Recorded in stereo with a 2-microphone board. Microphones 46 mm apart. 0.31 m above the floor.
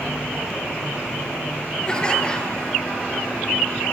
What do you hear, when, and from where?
1.9 s laughter: 15° left (ahead or behind), 6 m